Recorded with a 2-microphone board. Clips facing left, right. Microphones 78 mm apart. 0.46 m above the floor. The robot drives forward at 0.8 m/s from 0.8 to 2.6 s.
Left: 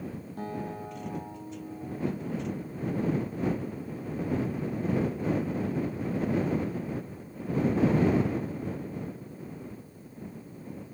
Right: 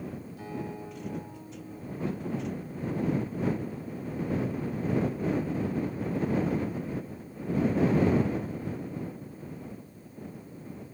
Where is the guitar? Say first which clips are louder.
Left 3 dB; 50° left (ahead or behind), 5.5 m; by 3.0 s 40° left (ahead or behind), 6.5 m.